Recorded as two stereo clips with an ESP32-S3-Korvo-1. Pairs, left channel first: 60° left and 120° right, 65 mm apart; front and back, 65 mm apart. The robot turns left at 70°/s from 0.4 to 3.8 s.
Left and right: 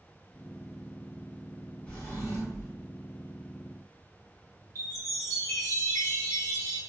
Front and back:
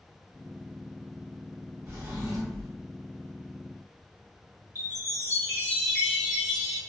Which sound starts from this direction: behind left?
A drawer, at 1.9 s.